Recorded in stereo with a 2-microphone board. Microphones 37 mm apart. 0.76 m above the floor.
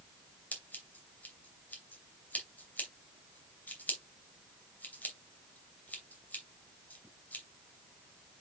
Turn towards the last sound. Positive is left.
turn(degrees=55)  # may be behind; listen again after turning